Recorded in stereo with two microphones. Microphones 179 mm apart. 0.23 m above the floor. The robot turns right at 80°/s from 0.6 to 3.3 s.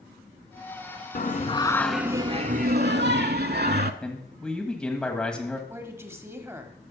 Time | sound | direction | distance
1.1 | singing | 120° left | 0.5 m
4.0 | a man speaking | 5° left (ahead or behind) | 1.4 m
5.7 | a woman speaking | 15° right (ahead or behind) | 1.0 m